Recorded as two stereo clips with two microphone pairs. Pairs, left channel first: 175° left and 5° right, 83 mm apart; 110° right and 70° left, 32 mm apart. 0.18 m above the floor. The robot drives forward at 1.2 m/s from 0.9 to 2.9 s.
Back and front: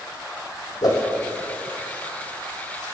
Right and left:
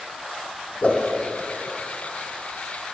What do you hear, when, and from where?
0.8 s a whoosh: 150° right, 1.5 m